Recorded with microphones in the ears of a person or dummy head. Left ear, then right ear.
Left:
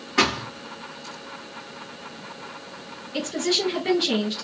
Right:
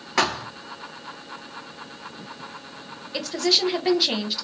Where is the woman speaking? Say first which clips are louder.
Right 3 dB; 35° right (ahead or behind), 0.9 m.